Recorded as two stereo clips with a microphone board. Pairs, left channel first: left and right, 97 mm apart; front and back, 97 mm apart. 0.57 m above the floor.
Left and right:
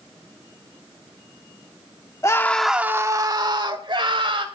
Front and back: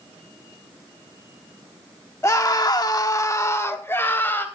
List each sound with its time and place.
2.2 s a scream: 50° left, 1.0 m; by 4.5 s 65° right, 2.5 m